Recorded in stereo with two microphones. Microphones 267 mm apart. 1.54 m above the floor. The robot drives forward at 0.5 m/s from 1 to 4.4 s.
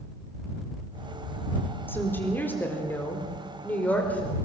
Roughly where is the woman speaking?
Centre.